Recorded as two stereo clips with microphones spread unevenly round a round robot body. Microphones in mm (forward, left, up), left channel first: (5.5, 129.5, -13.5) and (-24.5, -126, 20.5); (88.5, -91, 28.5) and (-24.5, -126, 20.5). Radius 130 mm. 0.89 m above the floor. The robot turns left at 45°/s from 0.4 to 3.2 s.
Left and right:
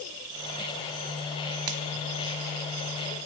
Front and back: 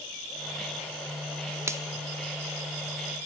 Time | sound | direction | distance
1.7 | a finger snap | 95° right | 1.3 m